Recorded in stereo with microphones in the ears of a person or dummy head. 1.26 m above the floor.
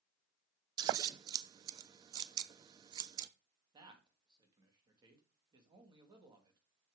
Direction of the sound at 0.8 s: 20° right (ahead or behind).